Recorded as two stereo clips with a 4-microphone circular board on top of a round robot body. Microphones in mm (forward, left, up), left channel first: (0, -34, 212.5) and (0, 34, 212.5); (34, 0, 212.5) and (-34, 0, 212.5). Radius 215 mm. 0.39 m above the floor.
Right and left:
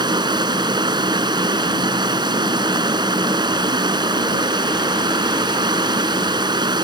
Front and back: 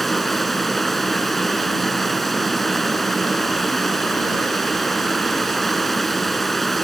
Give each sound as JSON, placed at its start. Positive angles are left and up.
{"t": 0.0, "sound": "running water", "azimuth_deg": 90}